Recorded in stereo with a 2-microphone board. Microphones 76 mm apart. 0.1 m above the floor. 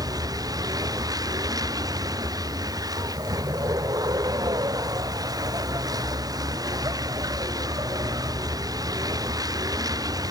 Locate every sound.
0.0 s a vehicle: 55° right (ahead or behind)